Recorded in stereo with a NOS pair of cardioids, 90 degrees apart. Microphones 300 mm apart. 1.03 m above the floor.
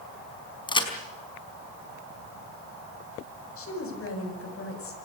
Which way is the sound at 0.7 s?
15° left.